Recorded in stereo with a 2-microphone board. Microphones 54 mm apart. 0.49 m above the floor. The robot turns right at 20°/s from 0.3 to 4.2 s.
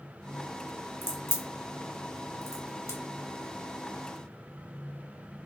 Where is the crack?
45° left (ahead or behind), 0.8 m; by 3.0 s 75° left (ahead or behind), 0.8 m.